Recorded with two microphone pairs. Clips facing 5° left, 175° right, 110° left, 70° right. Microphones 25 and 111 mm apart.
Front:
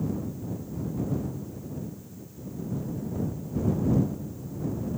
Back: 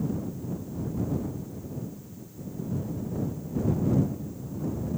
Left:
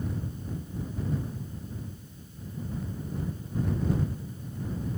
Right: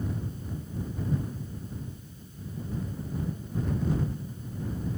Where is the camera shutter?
I don't hear a camera shutter.